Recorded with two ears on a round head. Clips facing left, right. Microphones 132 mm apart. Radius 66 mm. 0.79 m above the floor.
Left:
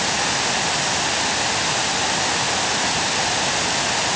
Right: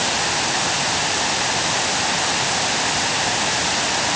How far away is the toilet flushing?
No toilet flushing in this recording.